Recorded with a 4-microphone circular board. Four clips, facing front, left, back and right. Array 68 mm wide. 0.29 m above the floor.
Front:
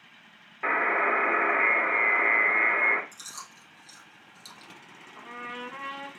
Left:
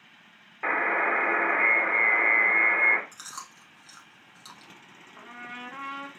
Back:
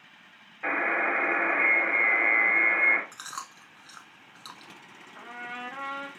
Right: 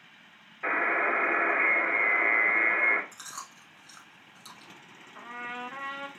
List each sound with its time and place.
0.6 s a buzzer: 55° left, 1.4 m
3.1 s chewing: 175° left, 0.6 m
5.2 s a trumpet: 125° right, 1.5 m